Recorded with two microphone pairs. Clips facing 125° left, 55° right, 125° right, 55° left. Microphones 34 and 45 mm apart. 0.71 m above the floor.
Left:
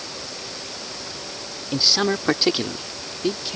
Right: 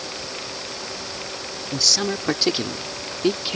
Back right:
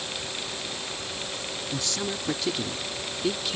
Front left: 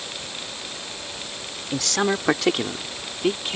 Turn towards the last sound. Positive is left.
turn(degrees=0)